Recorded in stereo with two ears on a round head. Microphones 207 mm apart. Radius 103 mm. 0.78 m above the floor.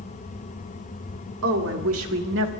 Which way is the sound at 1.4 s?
65° right (ahead or behind).